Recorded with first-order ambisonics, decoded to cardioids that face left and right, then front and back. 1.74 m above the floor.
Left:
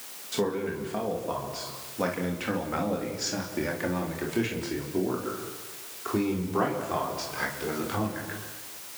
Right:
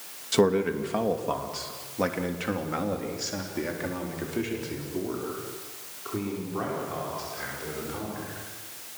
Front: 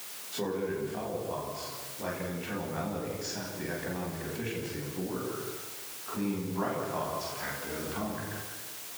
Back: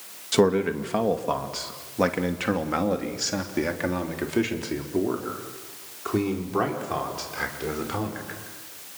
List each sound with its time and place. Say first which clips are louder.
0.3 s a man speaking: right 6 dB, back 12 dB; 155° right, 2.5 m; by 8.4 s 155° left, 6 m